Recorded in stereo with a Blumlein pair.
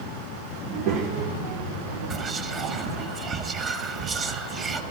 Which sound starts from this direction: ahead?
Whispering, at 2.1 s.